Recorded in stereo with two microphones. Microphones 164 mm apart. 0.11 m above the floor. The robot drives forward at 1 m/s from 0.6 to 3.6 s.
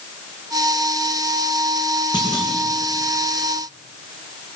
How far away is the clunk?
About 7.5 m.